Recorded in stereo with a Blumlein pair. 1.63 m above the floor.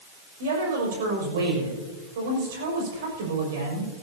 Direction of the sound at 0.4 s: 55° right.